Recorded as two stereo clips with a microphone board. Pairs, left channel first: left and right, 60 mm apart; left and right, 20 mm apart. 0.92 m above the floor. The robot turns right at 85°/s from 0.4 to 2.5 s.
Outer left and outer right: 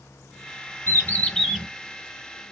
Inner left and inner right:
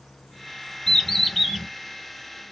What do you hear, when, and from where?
0.9 s a bird: 130° left, 2.5 m; by 1.6 s 165° right, 2.5 m